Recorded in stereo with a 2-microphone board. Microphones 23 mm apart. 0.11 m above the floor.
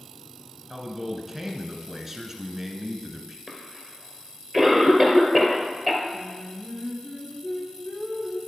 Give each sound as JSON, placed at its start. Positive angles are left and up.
{"t": 0.7, "sound": "a man speaking", "side_deg": -10, "distance_m": 1.2}
{"t": 3.5, "sound": "a cough", "side_deg": 15, "distance_m": 2.5}
{"t": 6.1, "sound": "singing", "side_deg": -5, "distance_m": 5.5}